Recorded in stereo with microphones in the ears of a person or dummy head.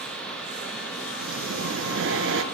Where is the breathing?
60° right (ahead or behind), 1.0 m.